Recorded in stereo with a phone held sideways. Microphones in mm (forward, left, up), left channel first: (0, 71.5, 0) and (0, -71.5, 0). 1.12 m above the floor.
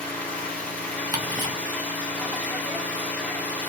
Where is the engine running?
10° left (ahead or behind), 1.0 m.